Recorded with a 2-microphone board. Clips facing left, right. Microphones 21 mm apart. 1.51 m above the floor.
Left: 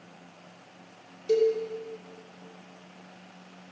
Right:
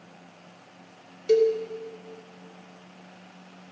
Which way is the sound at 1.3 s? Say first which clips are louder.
Right 3 dB; 35° right (ahead or behind).